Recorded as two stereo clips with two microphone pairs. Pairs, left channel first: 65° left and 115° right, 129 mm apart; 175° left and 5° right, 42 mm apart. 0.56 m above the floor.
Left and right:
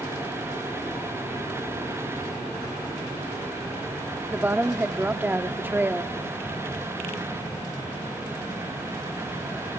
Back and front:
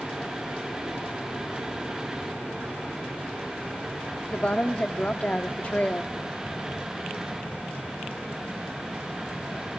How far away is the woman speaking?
About 1.0 m.